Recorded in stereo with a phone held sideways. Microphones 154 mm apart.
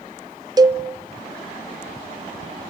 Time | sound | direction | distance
0.6 | a cowbell | 25° right (ahead or behind) | 0.6 m